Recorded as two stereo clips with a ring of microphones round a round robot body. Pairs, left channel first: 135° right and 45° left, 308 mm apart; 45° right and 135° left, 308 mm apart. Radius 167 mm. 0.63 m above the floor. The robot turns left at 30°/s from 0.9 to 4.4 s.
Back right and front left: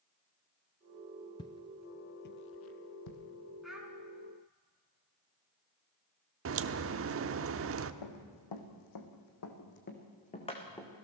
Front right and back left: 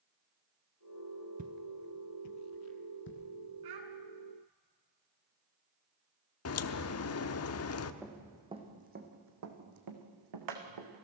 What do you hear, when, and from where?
1.4 s footsteps: 165° left, 0.6 m; by 3.2 s 105° right, 2.5 m
3.6 s a child speaking: 135° left, 5.5 m; by 3.9 s 125° left, 5.5 m
6.5 s a crack: straight ahead, 0.9 m
8.0 s running footsteps: 140° right, 3 m; by 11.1 s 140° left, 3.5 m